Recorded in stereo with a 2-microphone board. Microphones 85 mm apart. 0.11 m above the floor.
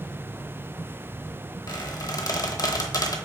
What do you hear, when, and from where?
1.7 s a squeak: 45° left (ahead or behind), 0.7 m